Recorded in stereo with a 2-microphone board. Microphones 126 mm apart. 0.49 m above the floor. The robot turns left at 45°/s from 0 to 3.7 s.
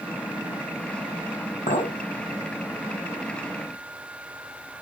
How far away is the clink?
About 1.7 m.